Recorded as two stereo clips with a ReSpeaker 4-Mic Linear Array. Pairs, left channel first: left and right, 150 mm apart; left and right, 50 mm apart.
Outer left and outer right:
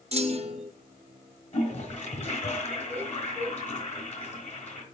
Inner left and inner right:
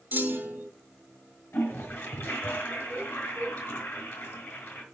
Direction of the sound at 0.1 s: 40° right (ahead or behind).